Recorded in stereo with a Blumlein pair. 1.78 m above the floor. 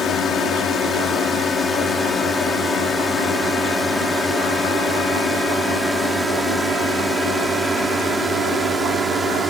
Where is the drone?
20° left; by 9.5 s 10° right.